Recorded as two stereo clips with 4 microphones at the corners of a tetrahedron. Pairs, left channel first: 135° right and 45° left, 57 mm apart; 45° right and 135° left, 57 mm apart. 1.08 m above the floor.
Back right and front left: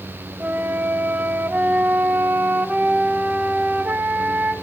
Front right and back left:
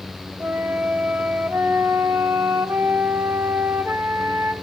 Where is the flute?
100° left, 1.2 m.